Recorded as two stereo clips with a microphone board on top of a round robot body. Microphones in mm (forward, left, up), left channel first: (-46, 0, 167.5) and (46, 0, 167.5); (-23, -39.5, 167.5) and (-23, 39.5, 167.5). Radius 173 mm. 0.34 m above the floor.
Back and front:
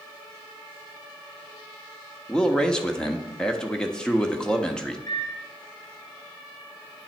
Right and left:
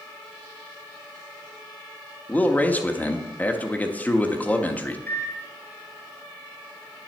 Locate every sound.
2.3 s a man speaking: 115° right, 1.3 m
5.1 s a microwave: 145° right, 1.6 m